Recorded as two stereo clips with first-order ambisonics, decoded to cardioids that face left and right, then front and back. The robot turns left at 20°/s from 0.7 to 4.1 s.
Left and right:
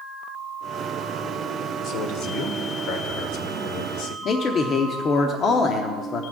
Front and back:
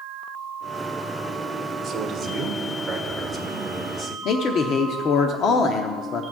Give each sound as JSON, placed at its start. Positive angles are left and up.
{"t": 1.8, "sound": "a man speaking", "azimuth_deg": 125, "distance_m": 1.7}
{"t": 4.2, "sound": "a man speaking", "azimuth_deg": 40, "distance_m": 0.8}